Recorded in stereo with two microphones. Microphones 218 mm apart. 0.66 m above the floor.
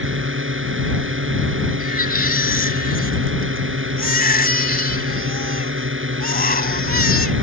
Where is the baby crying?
45° left (ahead or behind).